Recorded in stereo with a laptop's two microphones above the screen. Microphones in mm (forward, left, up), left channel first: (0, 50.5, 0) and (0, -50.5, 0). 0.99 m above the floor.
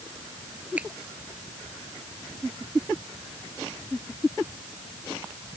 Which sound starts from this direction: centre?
A finger snap, at 0.8 s.